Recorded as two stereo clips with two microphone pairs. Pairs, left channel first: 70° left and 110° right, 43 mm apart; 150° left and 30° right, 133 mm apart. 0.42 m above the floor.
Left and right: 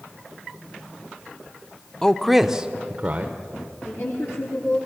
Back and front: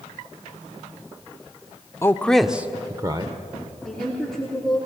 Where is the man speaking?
125° left, 0.7 m; by 3.3 s 75° right, 1.1 m.